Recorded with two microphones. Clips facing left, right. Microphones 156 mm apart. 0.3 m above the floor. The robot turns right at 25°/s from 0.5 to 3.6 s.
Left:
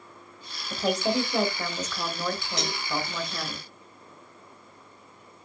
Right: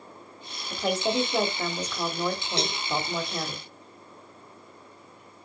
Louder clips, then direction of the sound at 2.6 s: Right 2 dB; 30° right (ahead or behind).